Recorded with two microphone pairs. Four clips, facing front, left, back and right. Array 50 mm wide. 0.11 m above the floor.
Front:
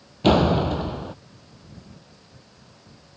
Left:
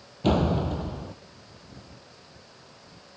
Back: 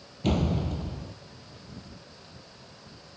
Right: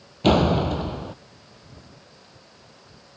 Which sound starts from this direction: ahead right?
A door slam, at 0.2 s.